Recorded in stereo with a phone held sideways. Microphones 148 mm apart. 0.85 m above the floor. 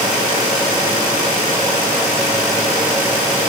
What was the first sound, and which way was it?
Only background noise.